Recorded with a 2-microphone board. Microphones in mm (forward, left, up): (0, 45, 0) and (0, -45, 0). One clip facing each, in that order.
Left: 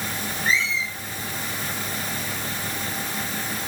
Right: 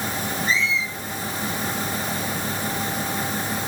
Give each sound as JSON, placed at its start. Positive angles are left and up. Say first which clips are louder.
{"t": 0.5, "sound": "a squeak", "louder": "left 1 dB", "side_deg": 70, "distance_m": 9.0}